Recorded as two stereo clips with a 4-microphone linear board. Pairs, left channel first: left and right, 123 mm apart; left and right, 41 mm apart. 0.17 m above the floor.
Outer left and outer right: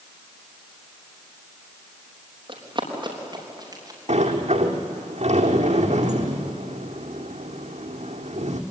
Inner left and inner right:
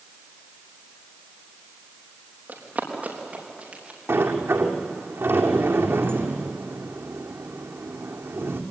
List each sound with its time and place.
2.5 s running footsteps: 45° right (ahead or behind), 5 m; by 4.0 s 30° right (ahead or behind), 6.5 m
4.1 s a sliding door: 75° right (ahead or behind), 2 m